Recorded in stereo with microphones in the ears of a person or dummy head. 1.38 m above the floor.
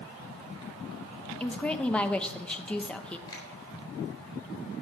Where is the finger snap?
25° left (ahead or behind), 3.5 m.